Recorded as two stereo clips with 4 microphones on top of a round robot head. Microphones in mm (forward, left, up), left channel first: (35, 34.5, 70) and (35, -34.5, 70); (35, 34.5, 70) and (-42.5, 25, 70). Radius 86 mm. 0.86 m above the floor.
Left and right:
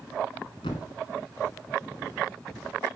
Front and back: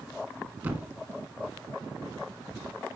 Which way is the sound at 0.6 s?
125° left.